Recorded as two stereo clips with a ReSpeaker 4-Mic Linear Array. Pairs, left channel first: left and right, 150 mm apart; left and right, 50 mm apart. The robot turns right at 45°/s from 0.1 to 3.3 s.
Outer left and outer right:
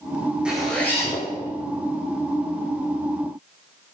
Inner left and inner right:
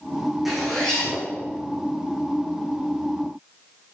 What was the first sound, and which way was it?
A zipper, 5° right.